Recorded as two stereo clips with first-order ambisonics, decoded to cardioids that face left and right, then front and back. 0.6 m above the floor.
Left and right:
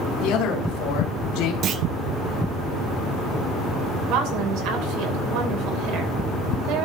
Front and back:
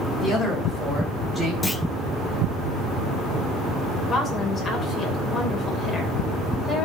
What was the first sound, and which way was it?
A man speaking, 65° left.